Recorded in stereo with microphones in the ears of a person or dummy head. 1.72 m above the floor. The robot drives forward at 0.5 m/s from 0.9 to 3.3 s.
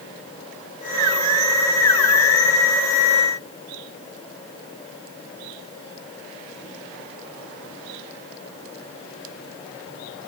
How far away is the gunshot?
No gunshot in this recording.